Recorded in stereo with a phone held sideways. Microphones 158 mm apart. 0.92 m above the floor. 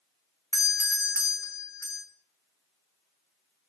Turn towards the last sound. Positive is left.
turn(degrees=20)  # may be behind; listen again after turning